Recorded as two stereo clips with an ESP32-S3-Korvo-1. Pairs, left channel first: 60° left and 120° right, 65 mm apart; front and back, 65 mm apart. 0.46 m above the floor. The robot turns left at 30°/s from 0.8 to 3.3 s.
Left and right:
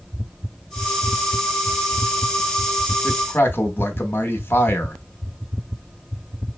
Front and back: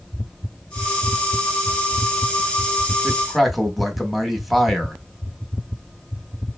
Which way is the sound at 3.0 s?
100° left.